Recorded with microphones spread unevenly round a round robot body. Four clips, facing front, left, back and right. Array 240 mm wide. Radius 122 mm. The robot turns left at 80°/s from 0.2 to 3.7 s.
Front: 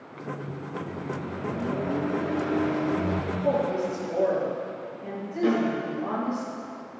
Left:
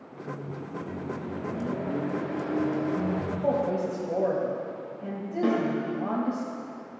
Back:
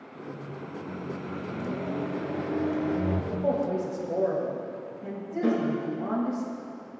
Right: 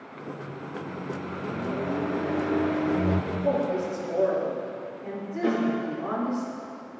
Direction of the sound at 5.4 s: 115° left.